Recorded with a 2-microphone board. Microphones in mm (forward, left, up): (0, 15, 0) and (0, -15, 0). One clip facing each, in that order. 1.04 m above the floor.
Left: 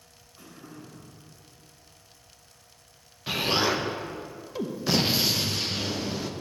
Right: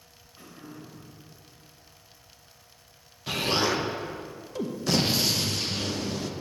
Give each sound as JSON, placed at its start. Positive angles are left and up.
{"t": 0.4, "sound": "throat clearing", "side_deg": -30, "distance_m": 3.0}
{"t": 3.3, "sound": "an explosion", "side_deg": 15, "distance_m": 0.6}